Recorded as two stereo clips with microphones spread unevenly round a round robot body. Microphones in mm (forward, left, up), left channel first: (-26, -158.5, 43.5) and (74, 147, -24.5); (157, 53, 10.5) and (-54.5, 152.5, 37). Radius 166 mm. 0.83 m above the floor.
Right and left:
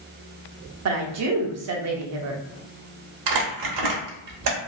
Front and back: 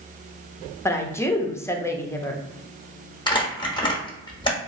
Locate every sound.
0.8 s a woman speaking: 50° left, 0.8 m
3.3 s crumpling: 45° left, 1.1 m